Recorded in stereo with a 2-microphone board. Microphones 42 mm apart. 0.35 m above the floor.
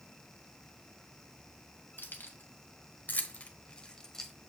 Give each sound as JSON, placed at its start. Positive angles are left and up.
{"t": 2.0, "sound": "keys jangling", "side_deg": 60, "distance_m": 1.5}